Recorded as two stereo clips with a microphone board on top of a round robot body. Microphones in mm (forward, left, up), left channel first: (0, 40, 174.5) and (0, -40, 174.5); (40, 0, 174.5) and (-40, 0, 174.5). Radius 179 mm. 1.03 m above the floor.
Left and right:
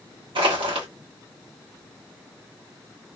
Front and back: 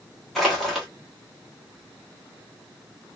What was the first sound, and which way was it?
Crushing, 90° right.